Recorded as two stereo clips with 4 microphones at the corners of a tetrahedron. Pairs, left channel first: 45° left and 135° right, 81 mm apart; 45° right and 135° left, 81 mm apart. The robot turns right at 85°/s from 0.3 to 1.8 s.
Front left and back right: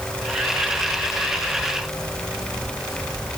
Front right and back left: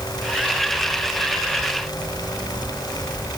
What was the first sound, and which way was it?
Only background noise.